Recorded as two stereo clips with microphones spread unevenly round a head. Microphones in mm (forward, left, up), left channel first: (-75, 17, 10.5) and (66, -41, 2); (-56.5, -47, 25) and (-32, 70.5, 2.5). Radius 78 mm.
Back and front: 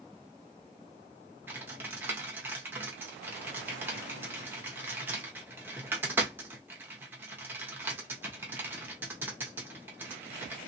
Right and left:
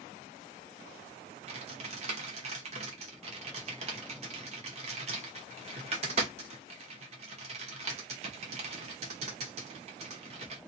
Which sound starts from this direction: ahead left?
Typing on a keyboard, at 1.5 s.